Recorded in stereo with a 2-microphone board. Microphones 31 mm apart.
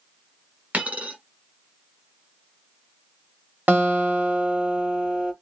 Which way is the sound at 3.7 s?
80° right.